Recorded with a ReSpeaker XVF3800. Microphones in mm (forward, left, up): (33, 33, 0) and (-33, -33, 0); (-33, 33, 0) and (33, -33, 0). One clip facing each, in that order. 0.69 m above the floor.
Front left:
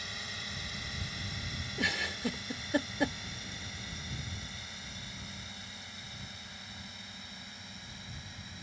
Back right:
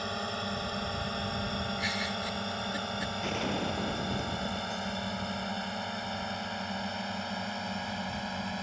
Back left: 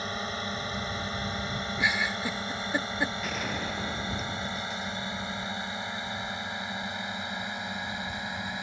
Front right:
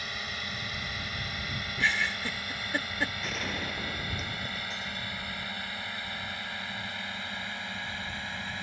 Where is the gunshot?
140° right.